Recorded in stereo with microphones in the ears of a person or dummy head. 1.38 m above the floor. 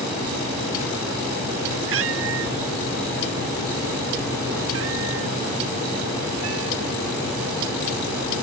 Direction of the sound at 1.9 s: 85° right.